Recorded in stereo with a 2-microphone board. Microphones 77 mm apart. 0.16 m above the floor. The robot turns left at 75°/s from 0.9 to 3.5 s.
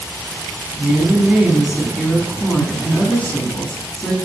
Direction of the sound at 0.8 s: 20° right (ahead or behind).